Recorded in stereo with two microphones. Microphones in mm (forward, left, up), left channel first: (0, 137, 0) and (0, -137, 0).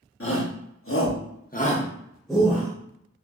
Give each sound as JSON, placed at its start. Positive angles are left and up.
{"t": 0.2, "sound": "a shout", "side_deg": 55, "distance_m": 1.1}